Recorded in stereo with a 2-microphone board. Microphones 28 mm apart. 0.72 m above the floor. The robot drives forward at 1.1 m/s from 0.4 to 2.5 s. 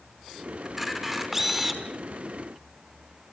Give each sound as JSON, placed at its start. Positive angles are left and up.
{"t": 0.7, "sound": "a camera shutter", "side_deg": -10, "distance_m": 4.5}